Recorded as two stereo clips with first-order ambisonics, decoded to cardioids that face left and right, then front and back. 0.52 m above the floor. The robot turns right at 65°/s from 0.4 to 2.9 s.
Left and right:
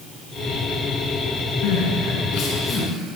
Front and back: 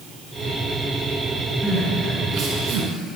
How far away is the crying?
About 7.5 m.